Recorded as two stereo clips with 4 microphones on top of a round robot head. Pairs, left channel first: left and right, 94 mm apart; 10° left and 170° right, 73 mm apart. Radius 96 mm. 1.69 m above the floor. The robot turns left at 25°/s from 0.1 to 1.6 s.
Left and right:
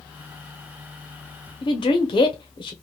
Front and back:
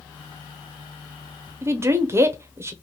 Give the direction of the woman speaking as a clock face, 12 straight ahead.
7 o'clock.